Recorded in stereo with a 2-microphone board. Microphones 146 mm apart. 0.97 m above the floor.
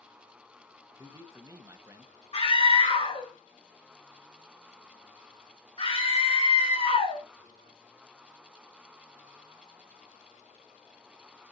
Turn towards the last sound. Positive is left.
turn(degrees=40)  # may be behind; listen again after turning